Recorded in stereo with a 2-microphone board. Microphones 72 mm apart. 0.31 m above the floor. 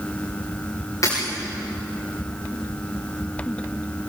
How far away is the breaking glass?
About 10 m.